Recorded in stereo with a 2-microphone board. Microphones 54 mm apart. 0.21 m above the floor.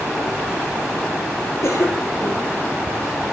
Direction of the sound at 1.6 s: 50° left (ahead or behind).